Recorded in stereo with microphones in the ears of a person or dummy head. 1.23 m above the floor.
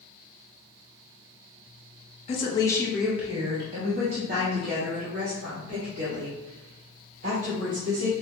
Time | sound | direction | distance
2.3 | a woman speaking | 35° left (ahead or behind) | 0.6 m